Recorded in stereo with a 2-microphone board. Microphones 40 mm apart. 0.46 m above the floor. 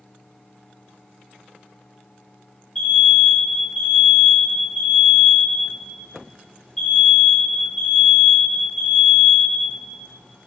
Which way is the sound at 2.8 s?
10° left (ahead or behind).